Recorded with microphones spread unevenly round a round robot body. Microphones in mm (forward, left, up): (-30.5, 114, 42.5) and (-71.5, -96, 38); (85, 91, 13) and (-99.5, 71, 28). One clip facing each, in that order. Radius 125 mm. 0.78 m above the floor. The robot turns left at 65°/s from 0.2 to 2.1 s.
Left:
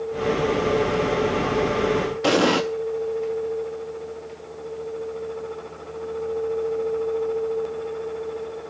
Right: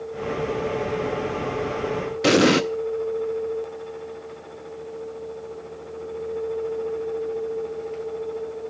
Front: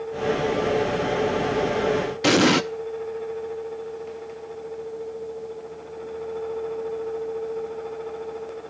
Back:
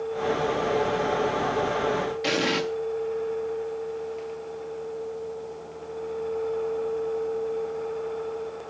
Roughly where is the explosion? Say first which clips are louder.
Right 3 dB, front 10 dB; ahead right.